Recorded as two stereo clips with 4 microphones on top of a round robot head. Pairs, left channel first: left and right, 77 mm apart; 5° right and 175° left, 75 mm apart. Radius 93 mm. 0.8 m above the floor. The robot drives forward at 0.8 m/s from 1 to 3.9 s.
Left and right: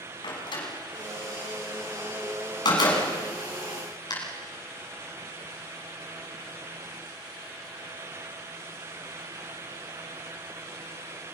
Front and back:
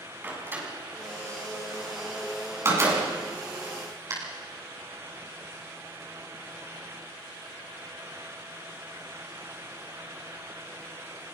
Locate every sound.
0.2 s a door slam: 110° left, 7 m; by 4.1 s 125° left, 8 m